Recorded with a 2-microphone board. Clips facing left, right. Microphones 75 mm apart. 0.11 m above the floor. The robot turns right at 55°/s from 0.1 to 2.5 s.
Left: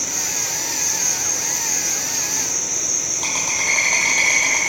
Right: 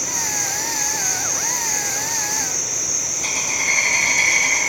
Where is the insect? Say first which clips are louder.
Right 3 dB; 45° right, 1.4 m; by 4.7 s 85° left, 1.4 m.